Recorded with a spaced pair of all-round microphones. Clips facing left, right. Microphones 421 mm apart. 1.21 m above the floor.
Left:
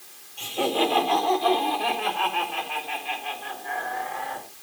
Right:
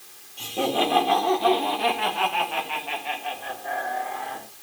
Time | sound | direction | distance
0.4 | laughter | 55° right (ahead or behind) | 4.5 m